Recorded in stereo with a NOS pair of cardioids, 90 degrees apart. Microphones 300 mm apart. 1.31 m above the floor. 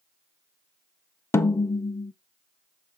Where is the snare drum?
10° left, 0.6 m.